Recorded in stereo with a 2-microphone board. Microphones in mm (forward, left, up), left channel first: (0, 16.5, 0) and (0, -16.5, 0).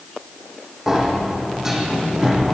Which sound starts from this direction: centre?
A sliding door, at 0.9 s.